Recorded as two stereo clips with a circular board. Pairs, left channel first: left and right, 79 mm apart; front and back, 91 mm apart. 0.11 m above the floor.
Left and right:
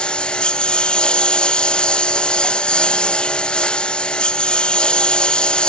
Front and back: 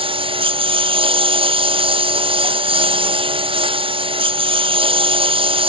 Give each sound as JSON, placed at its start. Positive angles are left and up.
{"t": 0.0, "sound": "a lawn mower", "azimuth_deg": 170}